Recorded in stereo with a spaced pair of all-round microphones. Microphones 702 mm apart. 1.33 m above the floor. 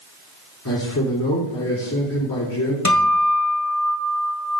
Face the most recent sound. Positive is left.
turn(degrees=25)  # may be behind; listen again after turning